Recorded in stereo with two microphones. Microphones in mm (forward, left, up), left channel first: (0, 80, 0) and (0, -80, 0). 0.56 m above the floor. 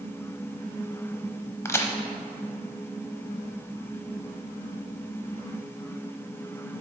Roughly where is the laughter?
I don't hear laughter.